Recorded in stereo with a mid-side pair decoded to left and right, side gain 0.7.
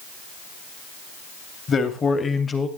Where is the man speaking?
30° left, 2.5 m; by 2.7 s 20° left, 1.8 m.